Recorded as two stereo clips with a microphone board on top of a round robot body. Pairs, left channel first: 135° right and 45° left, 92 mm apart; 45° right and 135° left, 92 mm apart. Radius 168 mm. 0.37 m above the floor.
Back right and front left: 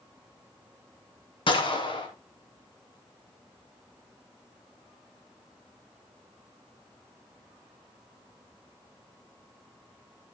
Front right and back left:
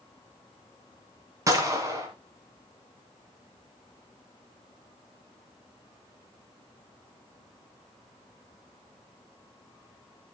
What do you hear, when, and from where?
1.5 s a gunshot: 170° right, 2 m